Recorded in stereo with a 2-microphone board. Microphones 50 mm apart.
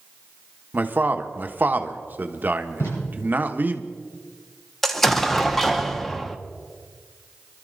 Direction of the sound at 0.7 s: 40° right (ahead or behind).